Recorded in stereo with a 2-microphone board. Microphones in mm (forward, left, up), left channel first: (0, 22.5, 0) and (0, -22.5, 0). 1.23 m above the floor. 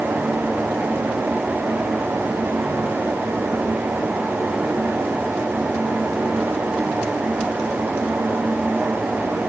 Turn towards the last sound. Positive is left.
No sound to turn to.